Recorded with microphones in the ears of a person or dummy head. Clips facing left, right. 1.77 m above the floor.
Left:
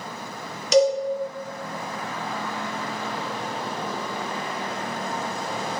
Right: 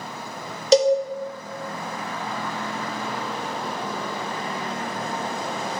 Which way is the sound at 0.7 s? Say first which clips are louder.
Right 2 dB; 30° right (ahead or behind).